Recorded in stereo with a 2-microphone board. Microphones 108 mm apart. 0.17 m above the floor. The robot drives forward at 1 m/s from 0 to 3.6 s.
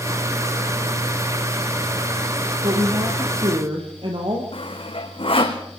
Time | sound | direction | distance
2.6 | a woman speaking | 60° right (ahead or behind) | 5 m
4.5 | sawing | 55° left (ahead or behind) | 3 m